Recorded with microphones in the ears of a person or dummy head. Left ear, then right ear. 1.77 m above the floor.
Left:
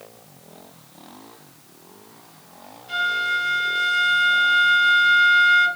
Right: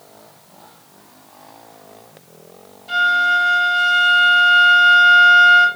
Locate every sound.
2.9 s a flute: 50° right (ahead or behind), 1.5 m